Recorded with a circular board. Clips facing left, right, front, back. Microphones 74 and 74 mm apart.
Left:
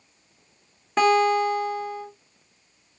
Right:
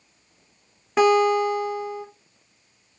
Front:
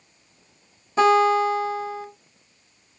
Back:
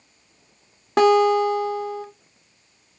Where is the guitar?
175° right, 0.7 m.